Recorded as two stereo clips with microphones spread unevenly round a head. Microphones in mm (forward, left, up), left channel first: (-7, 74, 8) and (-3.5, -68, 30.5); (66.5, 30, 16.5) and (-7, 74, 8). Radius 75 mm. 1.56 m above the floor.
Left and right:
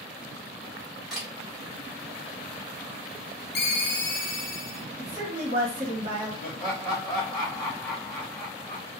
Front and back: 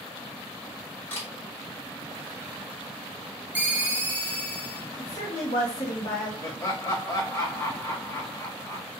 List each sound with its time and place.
1.1 s a camera shutter: 25° right, 1.1 m
3.5 s a ringtone: 75° left, 0.6 m
5.0 s a woman speaking: 55° right, 1.3 m
6.4 s laughter: 30° left, 0.9 m